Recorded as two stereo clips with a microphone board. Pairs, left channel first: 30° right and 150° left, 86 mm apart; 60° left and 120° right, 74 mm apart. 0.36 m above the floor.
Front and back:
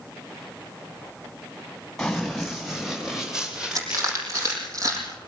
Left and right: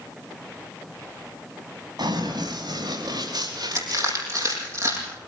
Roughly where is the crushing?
Behind.